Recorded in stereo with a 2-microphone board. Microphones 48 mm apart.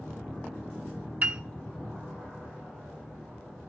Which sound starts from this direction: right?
A piano, at 1.2 s.